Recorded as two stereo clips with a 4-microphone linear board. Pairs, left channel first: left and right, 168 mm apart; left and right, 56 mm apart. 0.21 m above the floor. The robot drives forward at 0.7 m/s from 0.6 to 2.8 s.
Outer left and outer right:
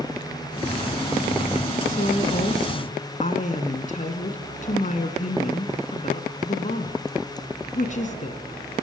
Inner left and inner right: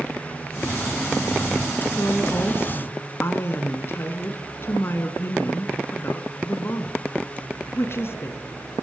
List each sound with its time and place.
1.9 s a woman speaking: 50° left (ahead or behind), 2.5 m; by 8.4 s 45° left (ahead or behind), 2.5 m